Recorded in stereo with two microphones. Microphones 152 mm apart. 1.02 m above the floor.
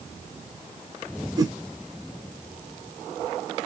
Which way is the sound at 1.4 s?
25° right (ahead or behind).